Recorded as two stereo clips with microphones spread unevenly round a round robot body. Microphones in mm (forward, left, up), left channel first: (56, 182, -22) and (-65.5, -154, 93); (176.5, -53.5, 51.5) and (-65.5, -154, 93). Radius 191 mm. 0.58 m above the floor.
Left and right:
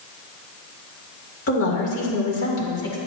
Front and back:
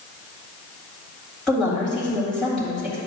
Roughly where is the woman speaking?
Left.